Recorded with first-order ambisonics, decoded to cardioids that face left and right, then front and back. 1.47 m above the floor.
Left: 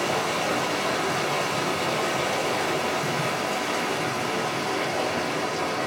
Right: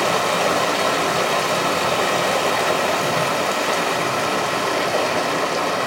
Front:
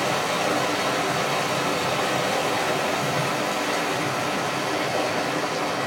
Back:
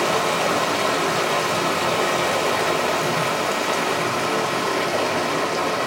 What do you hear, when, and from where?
0.0 s running water: 110° right, 1.1 m